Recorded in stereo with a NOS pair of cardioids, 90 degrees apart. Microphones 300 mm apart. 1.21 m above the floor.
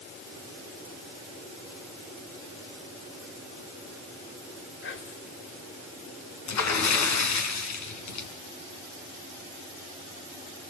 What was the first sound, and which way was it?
Whispering, 45° left.